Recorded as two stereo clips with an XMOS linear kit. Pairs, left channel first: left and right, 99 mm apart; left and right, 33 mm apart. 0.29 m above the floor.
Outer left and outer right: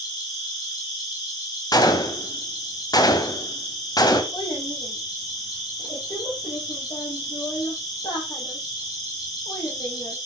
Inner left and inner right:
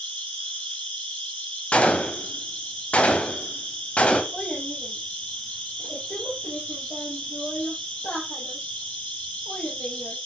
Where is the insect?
45° left (ahead or behind), 5 m.